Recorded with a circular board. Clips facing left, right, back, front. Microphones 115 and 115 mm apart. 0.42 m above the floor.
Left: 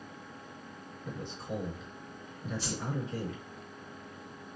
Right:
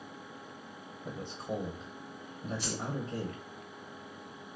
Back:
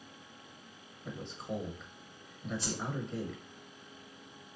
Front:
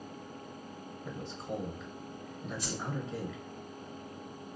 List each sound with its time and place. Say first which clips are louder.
1.1 s a man speaking: right 1 dB, even; 95° right, 1.0 m
2.6 s a whoosh: even, even; 130° left, 1.6 m